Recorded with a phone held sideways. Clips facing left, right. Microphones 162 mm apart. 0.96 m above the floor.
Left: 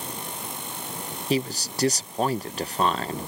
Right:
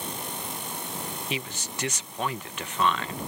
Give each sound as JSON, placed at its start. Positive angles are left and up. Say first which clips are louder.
{"t": 1.3, "sound": "a man speaking", "louder": "left 14 dB", "side_deg": 40}